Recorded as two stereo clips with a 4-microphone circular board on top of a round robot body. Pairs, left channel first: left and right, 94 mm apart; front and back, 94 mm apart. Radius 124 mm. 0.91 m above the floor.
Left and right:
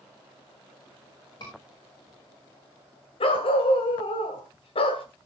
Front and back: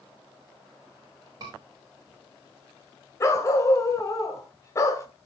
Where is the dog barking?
60° left, 1.8 m.